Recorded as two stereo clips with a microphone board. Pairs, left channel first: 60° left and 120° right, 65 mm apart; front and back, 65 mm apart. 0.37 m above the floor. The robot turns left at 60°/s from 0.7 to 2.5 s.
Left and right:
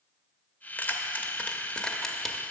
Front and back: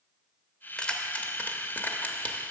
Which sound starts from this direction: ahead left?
Keys jangling, at 0.8 s.